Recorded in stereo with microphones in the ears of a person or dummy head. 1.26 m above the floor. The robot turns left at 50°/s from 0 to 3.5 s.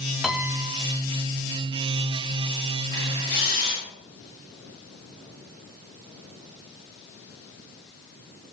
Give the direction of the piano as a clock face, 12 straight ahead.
12 o'clock.